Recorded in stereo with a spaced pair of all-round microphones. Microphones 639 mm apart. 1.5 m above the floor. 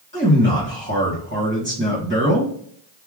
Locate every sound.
0.1 s a man speaking: 15° right (ahead or behind), 1.7 m